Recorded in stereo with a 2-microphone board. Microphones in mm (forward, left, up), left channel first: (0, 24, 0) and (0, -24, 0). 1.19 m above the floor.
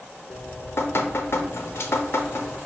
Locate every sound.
0.3 s dripping: 55° left (ahead or behind), 0.5 m